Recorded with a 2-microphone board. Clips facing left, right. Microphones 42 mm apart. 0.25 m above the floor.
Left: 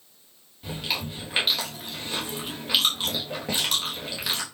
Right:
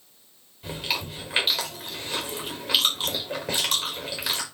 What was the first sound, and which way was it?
Chewing, 5° right (ahead or behind).